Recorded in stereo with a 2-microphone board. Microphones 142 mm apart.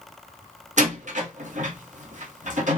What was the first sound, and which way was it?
A door slam, 60° right (ahead or behind).